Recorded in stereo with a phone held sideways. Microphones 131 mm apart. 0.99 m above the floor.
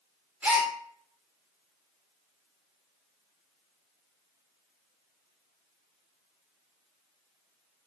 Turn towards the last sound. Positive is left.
turn(degrees=-15)  # may be behind; listen again after turning